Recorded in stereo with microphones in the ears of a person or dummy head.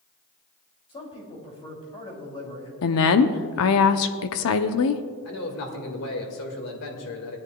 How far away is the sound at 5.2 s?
About 2.0 m.